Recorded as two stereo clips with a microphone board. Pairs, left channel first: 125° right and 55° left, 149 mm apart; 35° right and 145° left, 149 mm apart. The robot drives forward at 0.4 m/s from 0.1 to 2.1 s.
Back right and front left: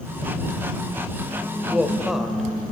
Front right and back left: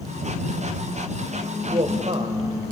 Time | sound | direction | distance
1.7 | a woman speaking | 135° left | 1.2 m